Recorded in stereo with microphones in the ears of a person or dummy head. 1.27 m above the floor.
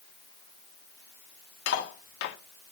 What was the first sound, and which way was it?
Cutlery clinking, 65° left (ahead or behind).